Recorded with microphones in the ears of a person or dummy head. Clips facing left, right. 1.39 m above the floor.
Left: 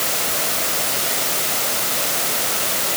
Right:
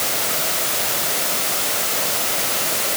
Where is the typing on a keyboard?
No typing on a keyboard in this recording.